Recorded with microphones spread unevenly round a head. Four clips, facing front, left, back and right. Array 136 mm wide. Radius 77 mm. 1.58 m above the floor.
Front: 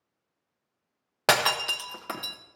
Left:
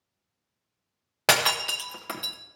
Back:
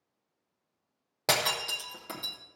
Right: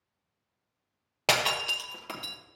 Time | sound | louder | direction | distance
1.3 | breaking glass | left 3 dB, front 6 dB | 155° left | 0.7 m